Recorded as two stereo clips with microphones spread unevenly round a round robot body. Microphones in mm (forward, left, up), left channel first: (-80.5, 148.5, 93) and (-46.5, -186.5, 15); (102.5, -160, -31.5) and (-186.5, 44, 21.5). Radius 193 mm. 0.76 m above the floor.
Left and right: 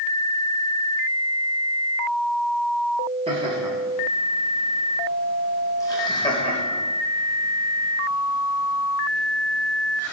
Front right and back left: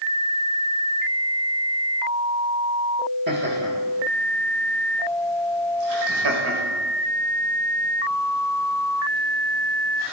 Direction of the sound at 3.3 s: 155° right.